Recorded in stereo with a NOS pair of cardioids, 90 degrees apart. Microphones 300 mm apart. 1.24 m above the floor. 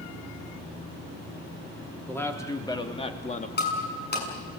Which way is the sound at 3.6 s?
35° left.